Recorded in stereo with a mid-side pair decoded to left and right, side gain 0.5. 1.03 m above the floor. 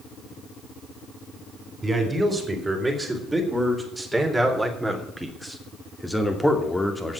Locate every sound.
1.8 s a man speaking: 20° right, 4.5 m; by 7.2 s 15° left, 2.5 m